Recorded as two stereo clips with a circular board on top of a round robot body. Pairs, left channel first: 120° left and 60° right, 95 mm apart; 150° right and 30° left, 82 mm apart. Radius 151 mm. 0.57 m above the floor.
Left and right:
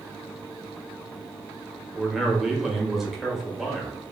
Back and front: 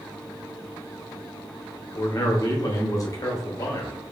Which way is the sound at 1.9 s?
145° right.